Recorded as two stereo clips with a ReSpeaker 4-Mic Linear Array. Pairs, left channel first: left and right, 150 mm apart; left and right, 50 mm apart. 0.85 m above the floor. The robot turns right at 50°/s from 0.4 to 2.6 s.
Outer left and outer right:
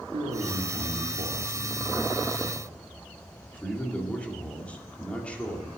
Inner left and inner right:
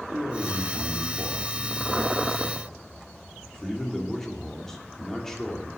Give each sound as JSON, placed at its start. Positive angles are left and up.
{"t": 0.1, "sound": "a man speaking", "azimuth_deg": -100, "distance_m": 2.0}